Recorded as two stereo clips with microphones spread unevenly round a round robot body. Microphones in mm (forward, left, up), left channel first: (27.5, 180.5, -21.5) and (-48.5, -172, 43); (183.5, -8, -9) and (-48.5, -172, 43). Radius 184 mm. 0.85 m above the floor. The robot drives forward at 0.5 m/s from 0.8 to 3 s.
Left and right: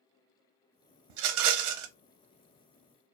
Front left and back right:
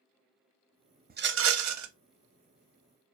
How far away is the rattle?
About 0.6 m.